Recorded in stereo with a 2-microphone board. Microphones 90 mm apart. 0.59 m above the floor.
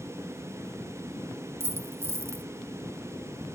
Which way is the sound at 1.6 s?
30° right (ahead or behind).